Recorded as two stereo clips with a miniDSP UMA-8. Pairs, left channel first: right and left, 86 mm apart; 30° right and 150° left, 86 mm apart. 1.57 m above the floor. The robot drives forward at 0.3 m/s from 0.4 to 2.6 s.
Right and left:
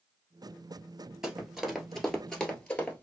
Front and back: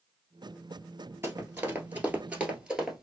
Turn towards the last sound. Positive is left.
turn(degrees=-130)